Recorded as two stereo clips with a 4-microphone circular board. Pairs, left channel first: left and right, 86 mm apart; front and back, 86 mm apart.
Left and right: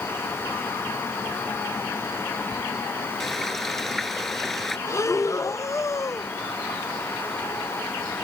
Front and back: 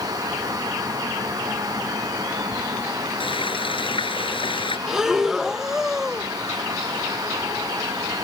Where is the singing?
No singing in this recording.